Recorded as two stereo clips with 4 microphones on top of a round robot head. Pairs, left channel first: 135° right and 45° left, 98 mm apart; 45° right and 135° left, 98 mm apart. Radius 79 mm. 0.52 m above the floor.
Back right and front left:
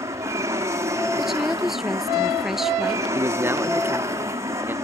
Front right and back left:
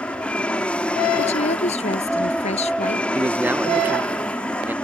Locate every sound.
0.0 s an aircraft: 25° left
1.2 s a woman speaking: 40° right
3.1 s a man speaking: 85° left